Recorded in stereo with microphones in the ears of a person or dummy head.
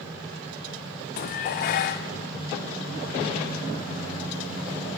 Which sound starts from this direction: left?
Dishes clattering, at 1.2 s.